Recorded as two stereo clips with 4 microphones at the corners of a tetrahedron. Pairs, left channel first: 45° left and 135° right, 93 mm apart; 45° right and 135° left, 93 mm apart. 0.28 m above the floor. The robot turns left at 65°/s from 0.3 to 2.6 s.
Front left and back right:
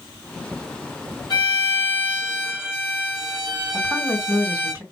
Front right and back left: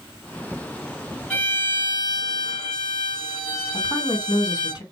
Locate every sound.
1.3 s a violin: 30° left, 2 m; by 4.7 s 55° right, 2 m
3.7 s a woman speaking: 70° right, 2 m